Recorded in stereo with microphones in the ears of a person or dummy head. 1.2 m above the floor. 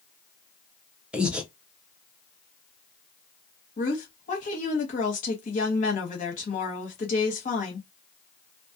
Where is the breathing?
5° right (ahead or behind), 0.5 m.